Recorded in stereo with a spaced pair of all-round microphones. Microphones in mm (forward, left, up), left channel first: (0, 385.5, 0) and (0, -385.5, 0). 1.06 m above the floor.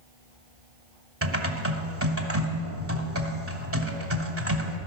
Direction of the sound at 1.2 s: 15° right (ahead or behind).